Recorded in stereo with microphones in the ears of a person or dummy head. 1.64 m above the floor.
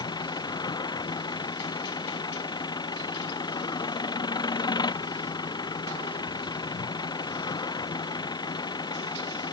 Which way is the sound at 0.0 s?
25° left (ahead or behind).